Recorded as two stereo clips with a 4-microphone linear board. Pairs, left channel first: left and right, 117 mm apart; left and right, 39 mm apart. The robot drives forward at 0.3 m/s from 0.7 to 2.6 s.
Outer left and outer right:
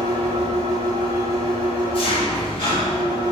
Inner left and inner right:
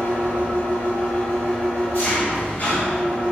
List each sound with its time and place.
0.0 s an engine running: 65° left (ahead or behind), 0.9 m; by 3.3 s 45° left (ahead or behind), 1.3 m